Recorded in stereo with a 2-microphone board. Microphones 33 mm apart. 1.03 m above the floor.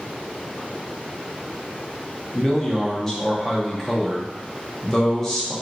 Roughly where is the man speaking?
Centre.